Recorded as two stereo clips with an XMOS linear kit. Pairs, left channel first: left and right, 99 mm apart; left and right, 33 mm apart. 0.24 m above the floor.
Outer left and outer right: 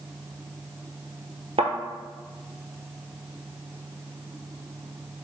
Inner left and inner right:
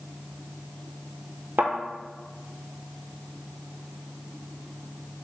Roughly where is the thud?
Right.